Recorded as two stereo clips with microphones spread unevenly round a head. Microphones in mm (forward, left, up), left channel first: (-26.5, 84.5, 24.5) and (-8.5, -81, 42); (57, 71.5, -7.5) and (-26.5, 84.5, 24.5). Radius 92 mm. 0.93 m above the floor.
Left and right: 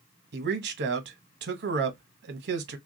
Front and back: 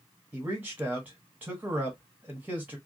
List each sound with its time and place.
0.3 s a man speaking: 105° right, 0.9 m